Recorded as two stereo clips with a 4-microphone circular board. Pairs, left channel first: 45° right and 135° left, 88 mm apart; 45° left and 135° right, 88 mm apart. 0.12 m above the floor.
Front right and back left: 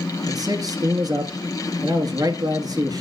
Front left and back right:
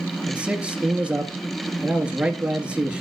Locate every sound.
0.3 s a man speaking: 150° left, 1.5 m